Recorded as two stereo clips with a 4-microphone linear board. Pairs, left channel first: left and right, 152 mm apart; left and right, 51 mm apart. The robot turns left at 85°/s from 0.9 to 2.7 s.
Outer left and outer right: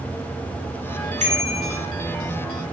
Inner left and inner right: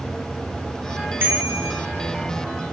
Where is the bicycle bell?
50° right, 5.5 m; by 1.8 s 100° right, 5.5 m.